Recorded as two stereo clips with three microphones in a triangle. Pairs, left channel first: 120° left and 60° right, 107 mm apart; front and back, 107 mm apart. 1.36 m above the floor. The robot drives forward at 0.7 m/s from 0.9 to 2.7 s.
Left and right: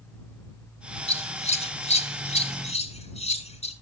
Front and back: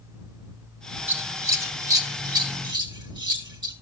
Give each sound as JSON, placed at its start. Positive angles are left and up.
{"t": 1.1, "sound": "scissors", "azimuth_deg": 110, "distance_m": 2.0}